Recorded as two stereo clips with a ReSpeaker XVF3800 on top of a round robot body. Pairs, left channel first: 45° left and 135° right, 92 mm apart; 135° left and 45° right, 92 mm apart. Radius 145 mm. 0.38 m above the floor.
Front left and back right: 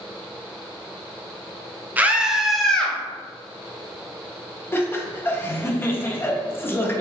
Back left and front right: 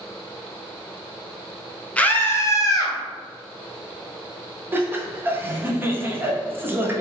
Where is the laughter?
Straight ahead, 0.9 m.